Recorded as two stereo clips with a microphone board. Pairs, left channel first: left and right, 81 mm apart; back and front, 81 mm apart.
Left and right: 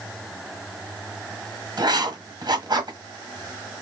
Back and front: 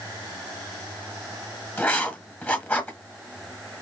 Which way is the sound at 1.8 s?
115° right.